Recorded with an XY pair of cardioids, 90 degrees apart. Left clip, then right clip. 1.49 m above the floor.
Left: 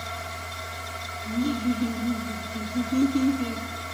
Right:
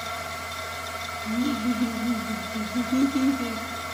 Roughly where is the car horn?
No car horn in this recording.